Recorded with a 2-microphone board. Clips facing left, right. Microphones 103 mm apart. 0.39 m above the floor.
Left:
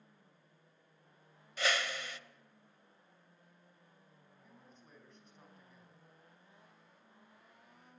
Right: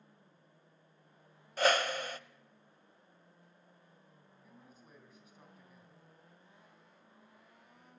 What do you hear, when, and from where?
1.6 s a whoosh: 45° right (ahead or behind), 0.6 m
4.4 s a man speaking: 5° right (ahead or behind), 3.5 m